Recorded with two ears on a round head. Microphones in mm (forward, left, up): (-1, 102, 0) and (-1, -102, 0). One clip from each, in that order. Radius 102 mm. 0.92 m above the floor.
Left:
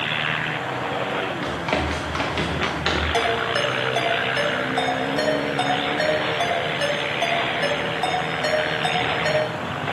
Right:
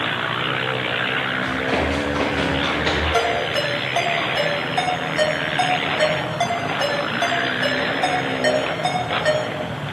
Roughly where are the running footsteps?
Left.